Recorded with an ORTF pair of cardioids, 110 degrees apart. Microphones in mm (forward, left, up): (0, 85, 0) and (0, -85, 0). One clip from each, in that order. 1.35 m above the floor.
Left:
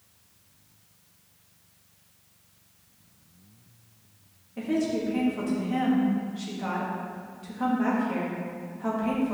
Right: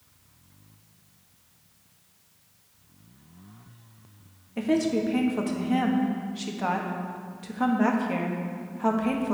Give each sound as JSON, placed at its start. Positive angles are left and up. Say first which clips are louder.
{"t": 4.6, "sound": "a woman speaking", "louder": "right 3 dB", "azimuth_deg": -40, "distance_m": 1.6}